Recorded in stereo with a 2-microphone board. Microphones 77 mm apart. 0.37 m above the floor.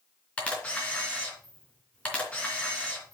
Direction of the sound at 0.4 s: 15° left (ahead or behind).